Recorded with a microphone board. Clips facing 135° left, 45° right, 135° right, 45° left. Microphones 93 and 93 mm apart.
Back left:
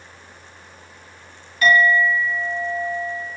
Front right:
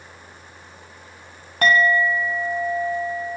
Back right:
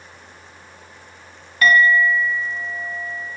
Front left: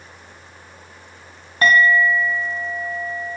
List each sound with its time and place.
1.6 s a clink: 10° right, 0.6 m